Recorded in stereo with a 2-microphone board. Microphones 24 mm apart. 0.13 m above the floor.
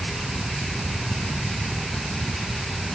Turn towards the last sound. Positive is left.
No sound to turn to.